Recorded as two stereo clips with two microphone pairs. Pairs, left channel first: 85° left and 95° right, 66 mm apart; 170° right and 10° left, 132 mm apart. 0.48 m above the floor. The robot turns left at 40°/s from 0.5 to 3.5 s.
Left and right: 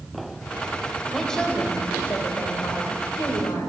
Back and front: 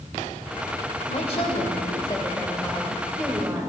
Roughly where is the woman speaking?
Behind.